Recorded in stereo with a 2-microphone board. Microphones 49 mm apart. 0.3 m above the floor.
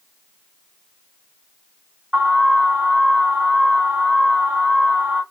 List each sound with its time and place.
2.1 s an alarm: 5° right (ahead or behind), 2.0 m